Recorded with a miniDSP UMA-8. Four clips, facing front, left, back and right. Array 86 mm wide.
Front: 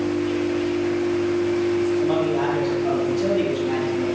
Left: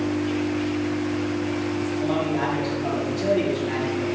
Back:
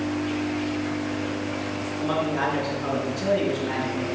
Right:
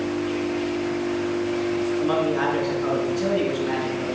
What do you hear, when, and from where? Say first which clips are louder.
2.0 s a man speaking: right 1 dB, front 4 dB; 120° right, 4.5 m